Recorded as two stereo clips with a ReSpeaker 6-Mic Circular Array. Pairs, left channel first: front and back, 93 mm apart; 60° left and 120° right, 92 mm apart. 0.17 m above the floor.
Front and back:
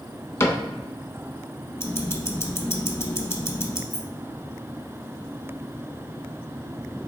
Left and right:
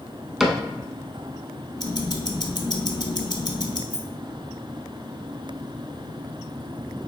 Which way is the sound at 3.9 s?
40° left.